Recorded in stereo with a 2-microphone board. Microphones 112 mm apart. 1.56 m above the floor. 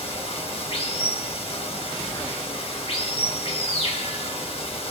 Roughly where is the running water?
Left.